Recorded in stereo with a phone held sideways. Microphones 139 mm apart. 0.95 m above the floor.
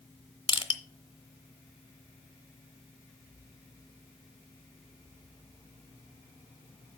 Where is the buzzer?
No buzzer in this recording.